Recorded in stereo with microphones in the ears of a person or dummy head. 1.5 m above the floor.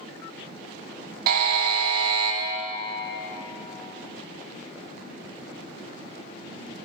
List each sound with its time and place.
1.3 s a buzzer: 60° right (ahead or behind), 0.8 m